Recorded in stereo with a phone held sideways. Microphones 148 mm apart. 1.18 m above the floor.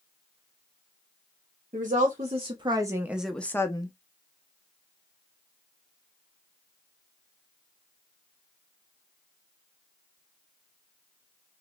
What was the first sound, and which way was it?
A woman speaking, 60° right (ahead or behind).